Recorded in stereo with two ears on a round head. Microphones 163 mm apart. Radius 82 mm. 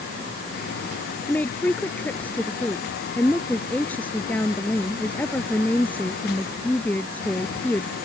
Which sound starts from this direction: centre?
A woman speaking, at 1.2 s.